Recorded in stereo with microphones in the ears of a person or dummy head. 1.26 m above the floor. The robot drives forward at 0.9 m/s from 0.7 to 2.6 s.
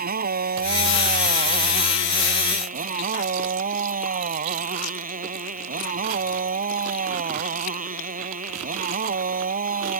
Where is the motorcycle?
50° right (ahead or behind); by 10.0 s 45° right (ahead or behind).